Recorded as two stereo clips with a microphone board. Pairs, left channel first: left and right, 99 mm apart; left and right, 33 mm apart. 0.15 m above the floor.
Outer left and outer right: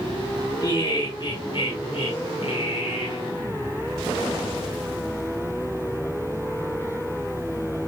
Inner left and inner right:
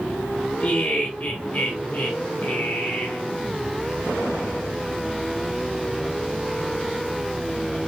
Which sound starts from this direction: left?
Laughter, at 0.6 s.